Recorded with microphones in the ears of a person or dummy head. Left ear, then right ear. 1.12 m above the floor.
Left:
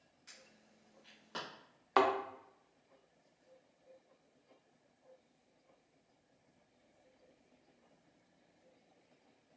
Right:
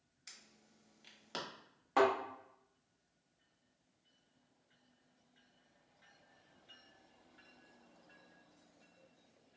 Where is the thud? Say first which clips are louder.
Even; 40° left (ahead or behind), 0.8 m.